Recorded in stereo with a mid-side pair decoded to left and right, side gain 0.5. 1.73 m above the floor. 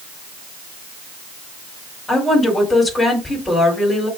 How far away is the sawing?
No sawing in this recording.